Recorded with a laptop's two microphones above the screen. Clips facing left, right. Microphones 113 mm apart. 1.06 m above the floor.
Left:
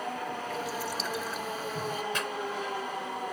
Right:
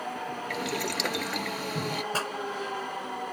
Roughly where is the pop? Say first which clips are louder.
Right 2 dB; right.